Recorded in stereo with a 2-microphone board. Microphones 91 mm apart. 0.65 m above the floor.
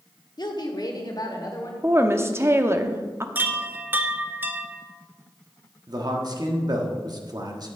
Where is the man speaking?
45° right (ahead or behind), 1.2 m.